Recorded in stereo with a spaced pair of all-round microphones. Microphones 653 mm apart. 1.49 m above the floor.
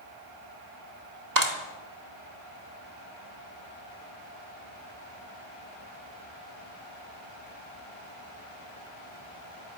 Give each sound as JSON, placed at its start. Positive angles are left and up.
{"t": 1.4, "sound": "a clap", "side_deg": -80, "distance_m": 2.5}